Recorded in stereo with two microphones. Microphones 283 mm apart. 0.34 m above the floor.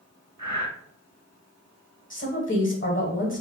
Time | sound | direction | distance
0.4 | breathing | 75° right (ahead or behind) | 0.5 m
2.1 | a woman speaking | 45° left (ahead or behind) | 1.1 m